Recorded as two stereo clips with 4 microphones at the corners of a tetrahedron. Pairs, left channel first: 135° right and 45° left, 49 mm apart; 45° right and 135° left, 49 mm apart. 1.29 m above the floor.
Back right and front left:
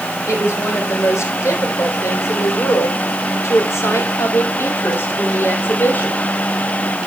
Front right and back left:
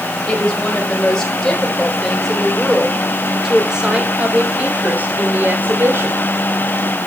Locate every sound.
0.3 s a woman speaking: 115° right, 5 m; by 6.2 s 170° left, 3 m